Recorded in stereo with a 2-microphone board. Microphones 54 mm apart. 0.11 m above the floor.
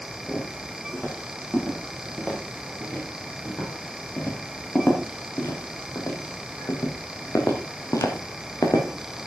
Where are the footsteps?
20° left (ahead or behind), 7 m; by 9.3 s 85° left, 3.5 m.